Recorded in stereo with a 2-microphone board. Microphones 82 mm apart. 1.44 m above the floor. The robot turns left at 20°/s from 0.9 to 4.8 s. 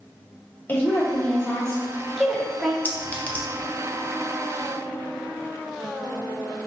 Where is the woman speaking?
25° left, 1.0 m; by 2.8 s 15° right, 1.0 m.